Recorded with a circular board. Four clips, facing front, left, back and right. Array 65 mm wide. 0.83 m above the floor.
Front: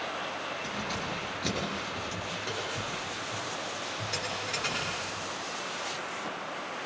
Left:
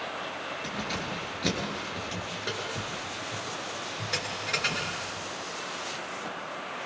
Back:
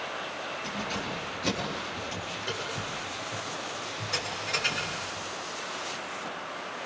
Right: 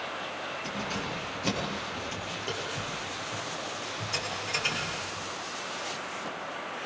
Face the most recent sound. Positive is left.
turn(degrees=100)